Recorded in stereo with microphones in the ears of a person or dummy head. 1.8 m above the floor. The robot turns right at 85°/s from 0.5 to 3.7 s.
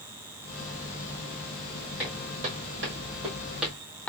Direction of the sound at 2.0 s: Centre (ahead or behind).